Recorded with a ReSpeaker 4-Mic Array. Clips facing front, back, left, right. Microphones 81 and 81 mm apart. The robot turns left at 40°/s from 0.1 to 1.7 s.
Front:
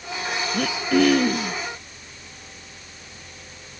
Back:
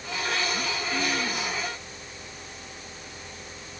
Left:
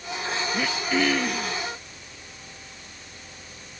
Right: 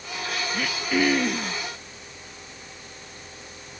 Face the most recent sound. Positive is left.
turn(degrees=-35)